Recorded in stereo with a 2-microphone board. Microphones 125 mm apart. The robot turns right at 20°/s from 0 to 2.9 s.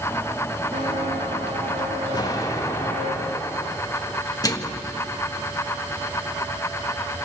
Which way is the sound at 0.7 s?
80° right.